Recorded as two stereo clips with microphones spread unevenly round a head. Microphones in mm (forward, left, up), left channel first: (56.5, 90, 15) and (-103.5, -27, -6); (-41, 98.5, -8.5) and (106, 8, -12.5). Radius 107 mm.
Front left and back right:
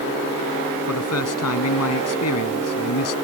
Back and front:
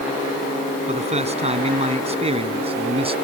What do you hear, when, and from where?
0.9 s a man speaking: 20° left; by 3.1 s 25° left